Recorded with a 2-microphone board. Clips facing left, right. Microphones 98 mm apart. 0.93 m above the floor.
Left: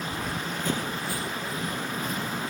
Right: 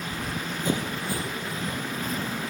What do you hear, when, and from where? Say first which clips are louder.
0.1 s running footsteps: even; 10° left (ahead or behind); by 2.4 s 35° right (ahead or behind)